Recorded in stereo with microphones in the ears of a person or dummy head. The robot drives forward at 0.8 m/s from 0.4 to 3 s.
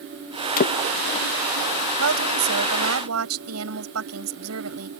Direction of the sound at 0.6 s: 45° left (ahead or behind).